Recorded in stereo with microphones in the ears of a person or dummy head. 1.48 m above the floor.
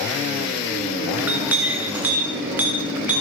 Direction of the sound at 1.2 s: 5° right (ahead or behind).